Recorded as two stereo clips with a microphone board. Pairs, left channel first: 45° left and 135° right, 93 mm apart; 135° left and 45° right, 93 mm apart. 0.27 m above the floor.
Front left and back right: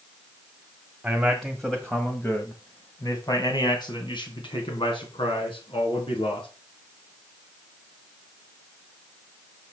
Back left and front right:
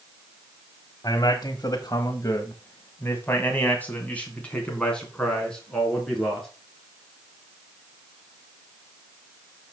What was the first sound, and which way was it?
A man speaking, 145° left.